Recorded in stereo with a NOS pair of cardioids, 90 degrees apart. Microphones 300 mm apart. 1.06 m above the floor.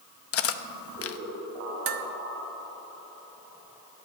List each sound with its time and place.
0.3 s cutlery clinking: 50° left, 0.8 m
1.9 s dishes clattering: 45° right, 1.1 m